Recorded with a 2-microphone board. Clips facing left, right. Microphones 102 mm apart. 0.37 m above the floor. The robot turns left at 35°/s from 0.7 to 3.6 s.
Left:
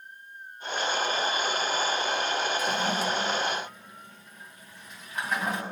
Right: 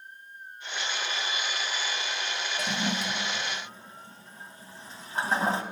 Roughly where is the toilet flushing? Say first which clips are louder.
Left 3 dB; right.